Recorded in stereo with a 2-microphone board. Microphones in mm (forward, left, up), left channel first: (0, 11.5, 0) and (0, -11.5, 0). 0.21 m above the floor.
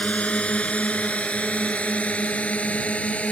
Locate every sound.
0.0 s a drone: 60° left (ahead or behind); by 3.3 s 65° left (ahead or behind)